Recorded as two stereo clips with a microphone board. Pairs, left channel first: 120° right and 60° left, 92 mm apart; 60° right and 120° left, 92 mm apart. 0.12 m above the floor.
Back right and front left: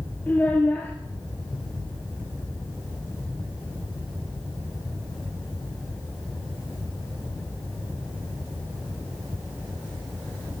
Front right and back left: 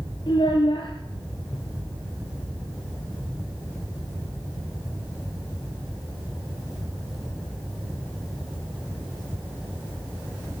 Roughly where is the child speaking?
Ahead right.